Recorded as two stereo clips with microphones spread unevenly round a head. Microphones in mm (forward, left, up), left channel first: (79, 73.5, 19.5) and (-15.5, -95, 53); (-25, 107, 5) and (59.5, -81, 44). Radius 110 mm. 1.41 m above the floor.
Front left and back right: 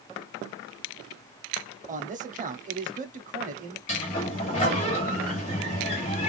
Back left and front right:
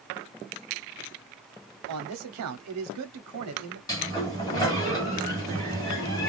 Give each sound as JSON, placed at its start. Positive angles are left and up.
{"t": 1.9, "sound": "a man speaking", "azimuth_deg": -65, "distance_m": 0.8}
{"t": 3.9, "sound": "a sliding door", "azimuth_deg": 40, "distance_m": 1.3}